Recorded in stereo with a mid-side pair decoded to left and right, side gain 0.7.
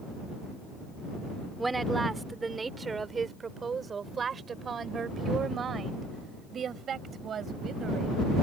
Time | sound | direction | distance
1.6 | a woman speaking | 10° right | ?